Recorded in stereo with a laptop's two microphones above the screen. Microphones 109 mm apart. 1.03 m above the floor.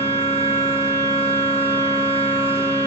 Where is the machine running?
60° left (ahead or behind), 1.5 m.